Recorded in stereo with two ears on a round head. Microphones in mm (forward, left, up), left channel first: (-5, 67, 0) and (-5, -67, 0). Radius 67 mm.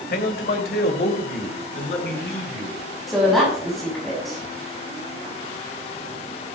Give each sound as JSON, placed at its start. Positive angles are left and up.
{"t": 0.1, "sound": "a man speaking", "side_deg": 65, "distance_m": 1.9}
{"t": 3.1, "sound": "a woman speaking", "side_deg": 0, "distance_m": 6.5}